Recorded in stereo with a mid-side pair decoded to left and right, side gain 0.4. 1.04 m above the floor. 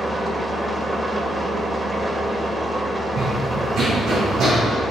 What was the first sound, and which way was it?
An engine running, 25° right.